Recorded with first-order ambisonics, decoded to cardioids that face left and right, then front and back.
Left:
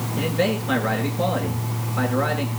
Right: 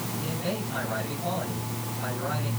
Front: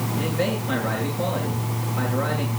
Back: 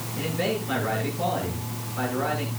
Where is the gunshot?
No gunshot in this recording.